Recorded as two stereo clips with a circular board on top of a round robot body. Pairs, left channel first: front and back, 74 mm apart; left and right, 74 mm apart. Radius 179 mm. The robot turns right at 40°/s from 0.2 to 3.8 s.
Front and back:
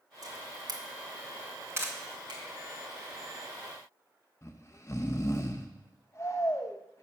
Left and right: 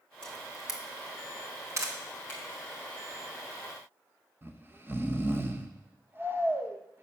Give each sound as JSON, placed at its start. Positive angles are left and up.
{"t": 0.2, "sound": "a camera shutter", "azimuth_deg": 170, "distance_m": 1.8}
{"t": 2.3, "sound": "a finger snap", "azimuth_deg": 160, "distance_m": 3.5}
{"t": 4.4, "sound": "snoring", "azimuth_deg": -40, "distance_m": 1.1}